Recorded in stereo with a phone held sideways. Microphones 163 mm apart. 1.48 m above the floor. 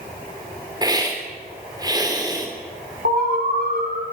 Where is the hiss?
25° right (ahead or behind), 3.5 m.